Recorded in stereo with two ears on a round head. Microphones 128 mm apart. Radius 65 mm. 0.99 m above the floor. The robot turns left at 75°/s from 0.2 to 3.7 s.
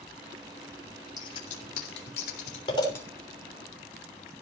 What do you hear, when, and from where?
1.2 s scissors: 25° left (ahead or behind), 3.5 m; by 3.0 s 10° left (ahead or behind), 3.5 m